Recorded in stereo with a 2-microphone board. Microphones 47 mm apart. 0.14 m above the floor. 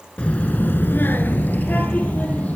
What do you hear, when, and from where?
0.2 s a child speaking: 25° left (ahead or behind), 1.3 m; by 2.6 s 30° left (ahead or behind), 3.5 m